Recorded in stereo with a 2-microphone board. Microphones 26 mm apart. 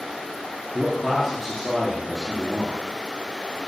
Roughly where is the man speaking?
Centre.